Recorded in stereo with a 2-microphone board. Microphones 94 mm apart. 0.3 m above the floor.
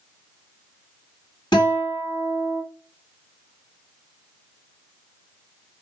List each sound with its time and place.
1.5 s a guitar: 50° left (ahead or behind), 2 m